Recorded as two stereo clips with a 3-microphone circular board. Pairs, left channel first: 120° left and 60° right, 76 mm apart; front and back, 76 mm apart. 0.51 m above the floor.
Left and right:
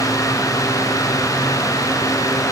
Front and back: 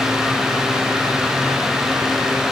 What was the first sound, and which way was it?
Only background noise.